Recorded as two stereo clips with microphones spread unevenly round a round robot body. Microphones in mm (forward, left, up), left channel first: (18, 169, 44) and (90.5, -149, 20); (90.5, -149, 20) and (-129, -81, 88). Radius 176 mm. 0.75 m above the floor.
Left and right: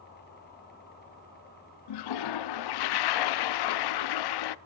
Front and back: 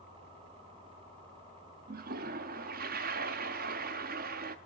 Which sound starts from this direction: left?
A toilet flushing, at 1.9 s.